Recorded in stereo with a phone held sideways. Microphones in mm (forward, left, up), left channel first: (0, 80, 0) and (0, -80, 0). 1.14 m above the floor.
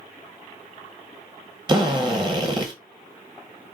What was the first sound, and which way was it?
A drill, 25° right (ahead or behind).